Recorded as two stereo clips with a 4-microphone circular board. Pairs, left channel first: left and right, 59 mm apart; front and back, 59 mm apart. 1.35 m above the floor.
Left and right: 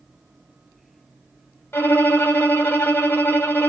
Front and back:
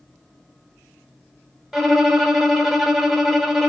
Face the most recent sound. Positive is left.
turn(degrees=95)